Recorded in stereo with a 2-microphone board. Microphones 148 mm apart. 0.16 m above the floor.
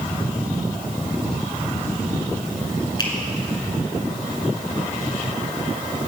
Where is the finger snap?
30° left (ahead or behind), 1.8 m.